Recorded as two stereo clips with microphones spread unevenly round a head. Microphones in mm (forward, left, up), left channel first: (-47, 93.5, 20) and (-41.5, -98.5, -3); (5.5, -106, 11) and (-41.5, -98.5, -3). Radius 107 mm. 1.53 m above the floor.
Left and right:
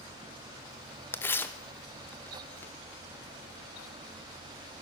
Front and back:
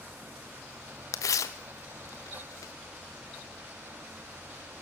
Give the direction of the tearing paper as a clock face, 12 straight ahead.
12 o'clock.